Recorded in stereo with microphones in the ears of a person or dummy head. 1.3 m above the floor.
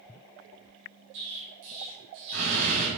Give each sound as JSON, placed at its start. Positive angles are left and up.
{"t": 1.1, "sound": "an explosion", "side_deg": -60, "distance_m": 3.5}